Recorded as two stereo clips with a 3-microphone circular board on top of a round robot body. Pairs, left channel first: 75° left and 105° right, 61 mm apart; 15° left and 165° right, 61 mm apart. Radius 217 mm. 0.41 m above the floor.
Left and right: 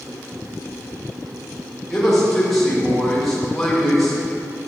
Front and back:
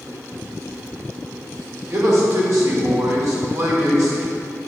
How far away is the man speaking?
About 2.5 m.